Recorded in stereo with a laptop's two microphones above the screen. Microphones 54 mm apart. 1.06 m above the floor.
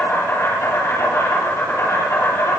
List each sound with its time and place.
0.0 s an insect: 70° left (ahead or behind), 7 m